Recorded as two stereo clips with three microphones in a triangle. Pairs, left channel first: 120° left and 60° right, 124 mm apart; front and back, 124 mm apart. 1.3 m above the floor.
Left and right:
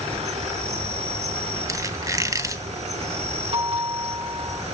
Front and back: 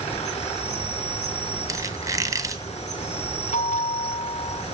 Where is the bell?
20° right, 8 m.